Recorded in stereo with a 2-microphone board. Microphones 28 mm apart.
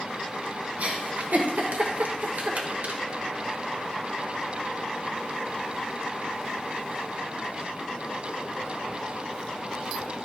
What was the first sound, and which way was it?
A giggle, 70° right (ahead or behind).